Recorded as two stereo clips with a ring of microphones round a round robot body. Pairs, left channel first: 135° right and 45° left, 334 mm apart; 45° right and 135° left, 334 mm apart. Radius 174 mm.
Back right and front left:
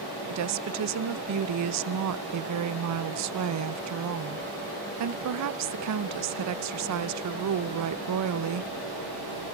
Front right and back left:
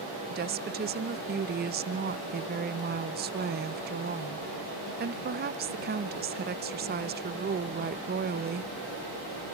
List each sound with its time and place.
0.3 s a woman speaking: 75° left, 0.8 m